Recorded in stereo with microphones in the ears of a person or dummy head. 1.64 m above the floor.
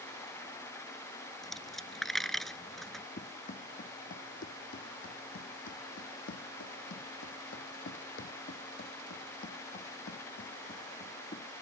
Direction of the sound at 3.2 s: 35° left (ahead or behind).